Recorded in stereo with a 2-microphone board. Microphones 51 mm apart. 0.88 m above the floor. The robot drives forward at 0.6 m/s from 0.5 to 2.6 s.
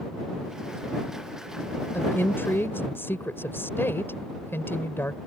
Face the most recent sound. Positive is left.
turn(degrees=50)  # may be behind; listen again after turning